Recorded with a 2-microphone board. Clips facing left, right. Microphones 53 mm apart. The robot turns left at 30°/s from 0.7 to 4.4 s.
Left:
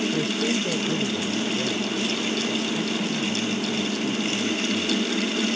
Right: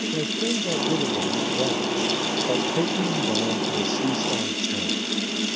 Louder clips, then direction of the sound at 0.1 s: Left 1 dB; 10° right.